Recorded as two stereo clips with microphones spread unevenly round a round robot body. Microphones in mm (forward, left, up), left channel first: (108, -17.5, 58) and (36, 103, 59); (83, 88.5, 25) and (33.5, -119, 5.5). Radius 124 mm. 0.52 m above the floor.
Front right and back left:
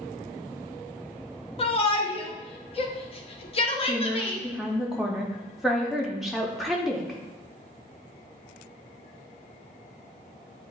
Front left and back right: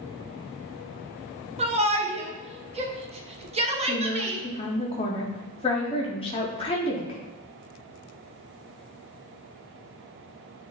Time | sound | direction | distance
1.6 | a shout | 65° right | 0.9 m
3.9 | a woman speaking | 35° left | 0.7 m